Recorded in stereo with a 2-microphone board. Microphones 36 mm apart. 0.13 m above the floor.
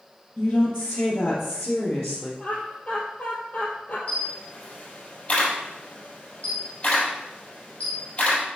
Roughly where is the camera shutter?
Left.